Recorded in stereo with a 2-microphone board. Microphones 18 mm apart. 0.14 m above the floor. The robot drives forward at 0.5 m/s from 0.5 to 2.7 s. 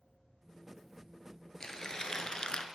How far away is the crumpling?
About 0.7 m.